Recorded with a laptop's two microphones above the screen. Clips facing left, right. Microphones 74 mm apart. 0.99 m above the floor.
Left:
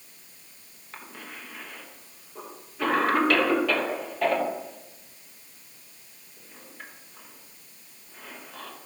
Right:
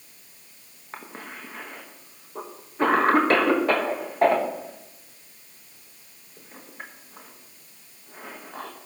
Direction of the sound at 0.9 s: 35° right (ahead or behind).